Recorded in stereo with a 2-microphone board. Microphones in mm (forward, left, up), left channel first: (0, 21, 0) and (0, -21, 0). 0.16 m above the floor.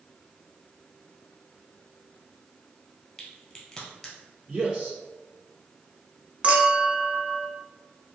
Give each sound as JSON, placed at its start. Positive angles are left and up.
{"t": 3.2, "sound": "a crack", "side_deg": 25, "distance_m": 1.4}
{"t": 4.5, "sound": "a man speaking", "side_deg": -10, "distance_m": 1.3}
{"t": 6.4, "sound": "a clink", "side_deg": -30, "distance_m": 0.8}